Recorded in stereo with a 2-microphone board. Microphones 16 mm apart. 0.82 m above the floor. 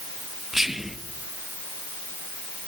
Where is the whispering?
25° right (ahead or behind), 0.5 m.